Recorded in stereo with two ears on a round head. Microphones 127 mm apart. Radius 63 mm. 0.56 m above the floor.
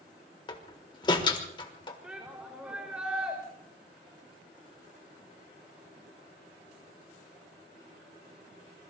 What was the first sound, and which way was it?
A door slam, 35° left (ahead or behind).